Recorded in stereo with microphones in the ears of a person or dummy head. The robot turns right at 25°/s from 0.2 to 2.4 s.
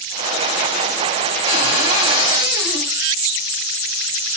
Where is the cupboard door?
70° right (ahead or behind), 2.5 m; by 2.9 s 60° right (ahead or behind), 2.5 m.